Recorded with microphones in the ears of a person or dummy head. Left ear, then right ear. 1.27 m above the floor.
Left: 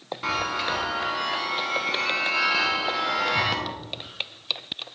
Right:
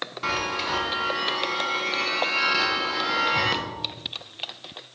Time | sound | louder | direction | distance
0.2 | a chime | left 1 dB | centre (ahead or behind) | 1.1 m